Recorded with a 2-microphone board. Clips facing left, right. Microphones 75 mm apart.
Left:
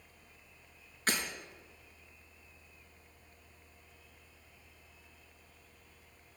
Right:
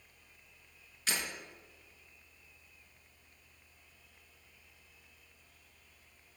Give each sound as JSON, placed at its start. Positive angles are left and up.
{"t": 1.1, "sound": "breaking glass", "side_deg": 45, "distance_m": 4.5}